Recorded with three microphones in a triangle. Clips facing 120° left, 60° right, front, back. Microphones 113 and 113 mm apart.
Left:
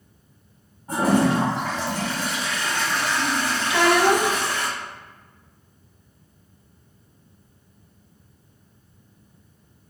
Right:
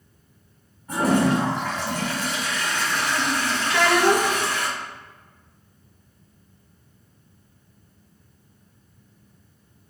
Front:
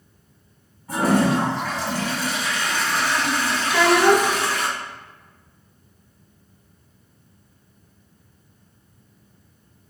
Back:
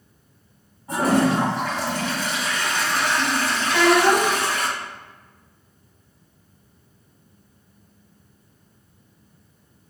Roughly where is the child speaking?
Left.